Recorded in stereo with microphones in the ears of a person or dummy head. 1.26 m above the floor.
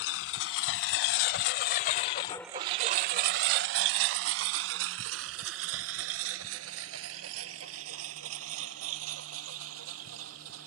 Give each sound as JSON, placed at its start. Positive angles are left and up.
{"t": 0.0, "sound": "a lawn mower", "side_deg": 75}